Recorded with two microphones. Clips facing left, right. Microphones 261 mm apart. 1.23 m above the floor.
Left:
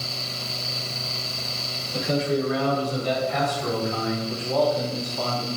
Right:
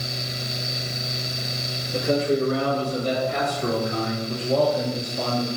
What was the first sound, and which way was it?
A man speaking, 50° right (ahead or behind).